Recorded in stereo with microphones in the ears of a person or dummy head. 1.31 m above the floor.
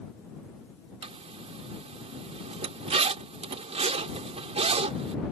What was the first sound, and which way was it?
A zipper, 25° right (ahead or behind).